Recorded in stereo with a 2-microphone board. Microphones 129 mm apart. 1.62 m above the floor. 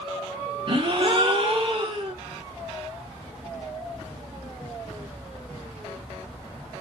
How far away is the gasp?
About 0.8 m.